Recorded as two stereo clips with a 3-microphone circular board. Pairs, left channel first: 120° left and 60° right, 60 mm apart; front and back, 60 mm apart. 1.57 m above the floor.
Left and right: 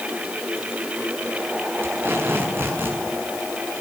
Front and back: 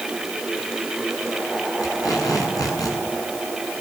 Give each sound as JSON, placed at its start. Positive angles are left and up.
{"t": 1.8, "sound": "tape being pulled", "azimuth_deg": -10, "distance_m": 7.5}